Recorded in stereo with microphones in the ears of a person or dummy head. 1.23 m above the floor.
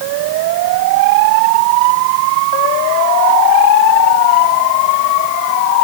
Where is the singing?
I don't hear singing.